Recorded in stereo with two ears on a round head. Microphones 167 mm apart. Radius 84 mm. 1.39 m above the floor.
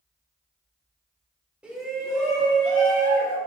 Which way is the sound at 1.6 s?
5° right (ahead or behind).